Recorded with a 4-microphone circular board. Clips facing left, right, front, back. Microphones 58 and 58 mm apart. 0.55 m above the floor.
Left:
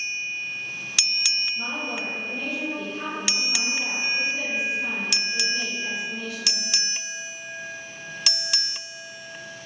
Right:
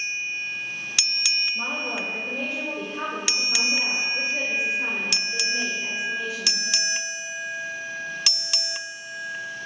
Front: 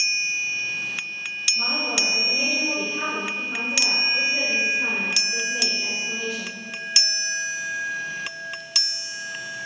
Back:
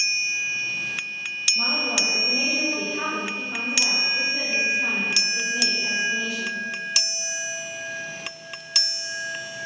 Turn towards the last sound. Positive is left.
turn(degrees=-20)